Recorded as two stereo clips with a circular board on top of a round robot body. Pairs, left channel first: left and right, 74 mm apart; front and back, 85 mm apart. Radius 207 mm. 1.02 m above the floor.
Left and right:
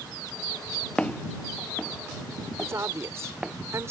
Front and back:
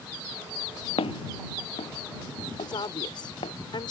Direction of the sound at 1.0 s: 15° left.